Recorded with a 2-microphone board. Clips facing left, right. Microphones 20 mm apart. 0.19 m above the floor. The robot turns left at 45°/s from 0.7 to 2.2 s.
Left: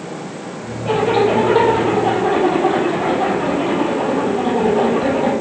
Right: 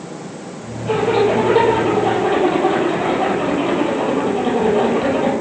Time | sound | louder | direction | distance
0.8 | a zipper | even | 15° left | 3.5 m